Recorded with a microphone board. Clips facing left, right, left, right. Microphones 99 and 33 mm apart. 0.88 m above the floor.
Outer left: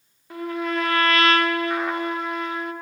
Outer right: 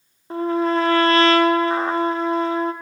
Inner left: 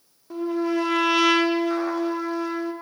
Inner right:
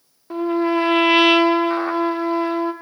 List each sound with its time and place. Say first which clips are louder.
0.3 s a trumpet: outer right 7 dB, inner right 5 dB; 35° right (ahead or behind), 1.0 m